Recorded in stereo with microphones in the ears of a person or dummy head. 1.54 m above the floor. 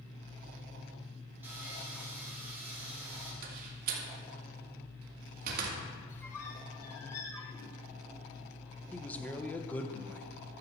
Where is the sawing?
5° right (ahead or behind), 4 m.